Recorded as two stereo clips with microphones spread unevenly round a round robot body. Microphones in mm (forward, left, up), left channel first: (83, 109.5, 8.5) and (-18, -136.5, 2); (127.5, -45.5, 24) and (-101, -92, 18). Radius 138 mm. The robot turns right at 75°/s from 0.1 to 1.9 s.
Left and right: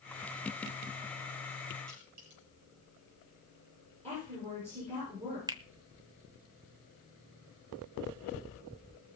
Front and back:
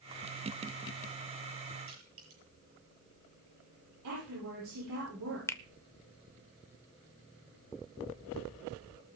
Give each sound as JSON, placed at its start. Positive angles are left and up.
{"t": 1.9, "sound": "crushing", "azimuth_deg": -150, "distance_m": 8.0}
{"t": 4.0, "sound": "a woman speaking", "azimuth_deg": 180, "distance_m": 9.5}
{"t": 5.5, "sound": "a finger snap", "azimuth_deg": -55, "distance_m": 0.8}